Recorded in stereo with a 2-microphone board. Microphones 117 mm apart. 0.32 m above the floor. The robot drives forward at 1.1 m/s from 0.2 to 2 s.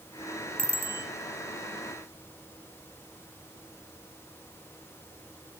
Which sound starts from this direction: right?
A bicycle bell, at 0.6 s.